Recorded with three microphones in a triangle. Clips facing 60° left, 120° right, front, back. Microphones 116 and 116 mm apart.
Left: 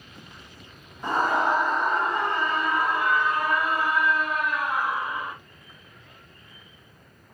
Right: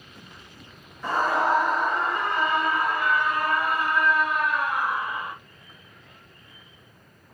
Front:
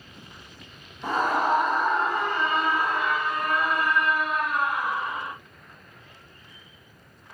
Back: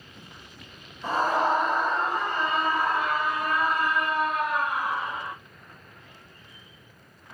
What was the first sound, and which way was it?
A scream, 5° right.